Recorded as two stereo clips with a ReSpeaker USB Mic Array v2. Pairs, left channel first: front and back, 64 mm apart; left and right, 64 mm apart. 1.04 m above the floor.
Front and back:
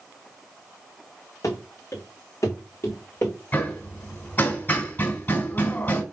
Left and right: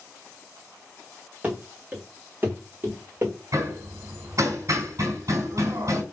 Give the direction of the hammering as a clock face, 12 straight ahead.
2 o'clock.